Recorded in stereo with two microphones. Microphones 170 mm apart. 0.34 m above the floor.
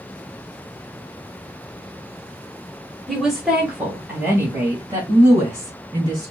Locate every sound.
3.1 s a woman speaking: centre (ahead or behind), 1.2 m; by 6.3 s 20° right (ahead or behind), 2.5 m